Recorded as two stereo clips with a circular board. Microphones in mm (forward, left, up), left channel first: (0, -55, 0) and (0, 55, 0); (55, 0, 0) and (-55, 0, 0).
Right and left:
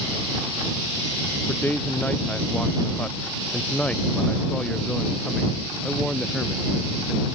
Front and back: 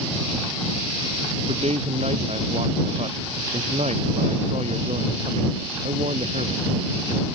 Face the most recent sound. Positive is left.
turn(degrees=180)